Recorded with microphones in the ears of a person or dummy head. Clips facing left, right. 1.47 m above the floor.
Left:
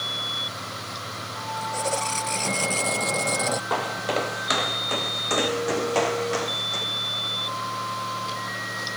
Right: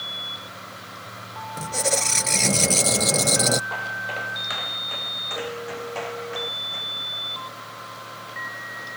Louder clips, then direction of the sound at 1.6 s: Right 2 dB; 30° right (ahead or behind).